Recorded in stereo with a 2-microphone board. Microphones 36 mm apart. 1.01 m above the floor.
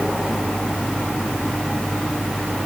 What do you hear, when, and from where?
Only background noise.